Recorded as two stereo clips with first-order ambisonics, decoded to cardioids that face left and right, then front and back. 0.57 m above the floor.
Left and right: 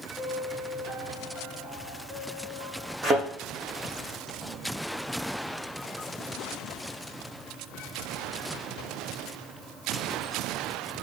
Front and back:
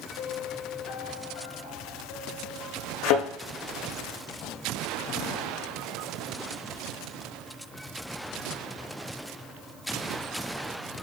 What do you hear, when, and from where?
0.2 s a piano: straight ahead, 5 m
3.0 s a thud: 15° right, 5.5 m